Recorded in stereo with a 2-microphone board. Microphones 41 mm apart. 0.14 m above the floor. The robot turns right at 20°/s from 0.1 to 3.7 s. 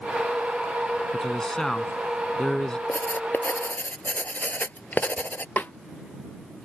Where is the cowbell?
No cowbell in this recording.